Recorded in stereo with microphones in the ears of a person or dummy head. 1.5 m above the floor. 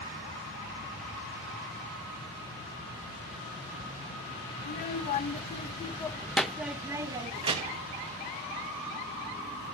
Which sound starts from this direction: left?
A child speaking, at 4.6 s.